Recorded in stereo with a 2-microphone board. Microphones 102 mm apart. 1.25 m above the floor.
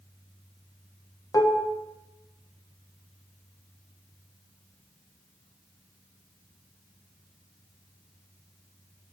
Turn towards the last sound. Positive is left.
turn(degrees=40)  # may be behind; listen again after turning